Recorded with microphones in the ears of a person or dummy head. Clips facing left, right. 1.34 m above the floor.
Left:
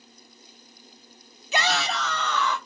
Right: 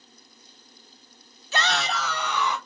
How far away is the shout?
About 0.6 m.